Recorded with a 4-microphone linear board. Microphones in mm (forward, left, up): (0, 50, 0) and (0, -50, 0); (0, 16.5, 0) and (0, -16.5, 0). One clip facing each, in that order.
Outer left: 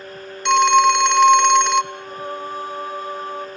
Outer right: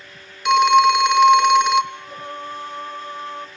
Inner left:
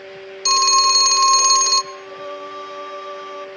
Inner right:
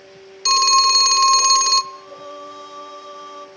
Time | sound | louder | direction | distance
0.5 | a phone ringing | even, inner right 1 dB | 5° right (ahead or behind) | 0.7 m
1.9 | singing | outer left 3 dB, inner left 4 dB | 10° left (ahead or behind) | 1.5 m